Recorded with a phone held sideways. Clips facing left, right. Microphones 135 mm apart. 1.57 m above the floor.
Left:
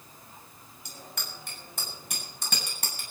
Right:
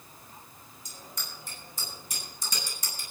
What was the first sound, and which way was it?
A bicycle bell, 65° left (ahead or behind).